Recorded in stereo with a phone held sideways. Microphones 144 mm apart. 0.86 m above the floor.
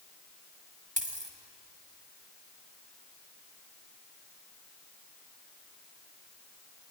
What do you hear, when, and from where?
1.0 s a dropped coin: 65° right (ahead or behind), 1.9 m